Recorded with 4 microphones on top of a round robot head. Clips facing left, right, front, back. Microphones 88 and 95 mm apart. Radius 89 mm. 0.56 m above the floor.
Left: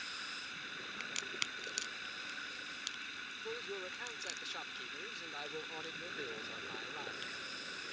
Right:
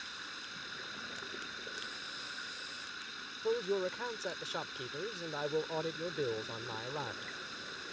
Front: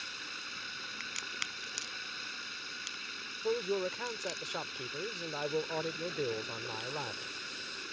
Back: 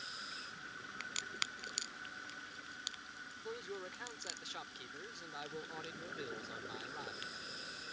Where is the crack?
100° left.